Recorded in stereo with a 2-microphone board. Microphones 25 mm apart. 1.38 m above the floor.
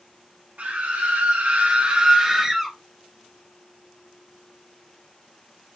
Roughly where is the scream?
Right.